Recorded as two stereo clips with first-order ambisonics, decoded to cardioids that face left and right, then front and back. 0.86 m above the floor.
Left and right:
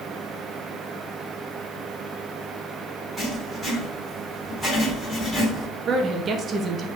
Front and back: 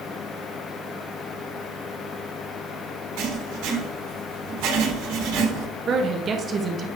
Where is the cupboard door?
No cupboard door in this recording.